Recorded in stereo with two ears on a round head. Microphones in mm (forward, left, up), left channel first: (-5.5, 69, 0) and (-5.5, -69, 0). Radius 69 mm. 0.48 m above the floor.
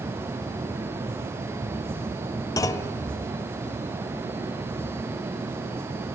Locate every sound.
2.6 s a clunk: 20° left (ahead or behind), 0.6 m